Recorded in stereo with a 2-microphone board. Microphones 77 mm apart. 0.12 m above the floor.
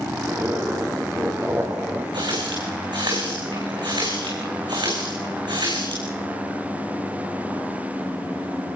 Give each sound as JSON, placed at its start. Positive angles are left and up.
{"t": 0.2, "sound": "a zipper", "side_deg": -30, "distance_m": 4.5}
{"t": 2.1, "sound": "a running tap", "side_deg": -75, "distance_m": 6.0}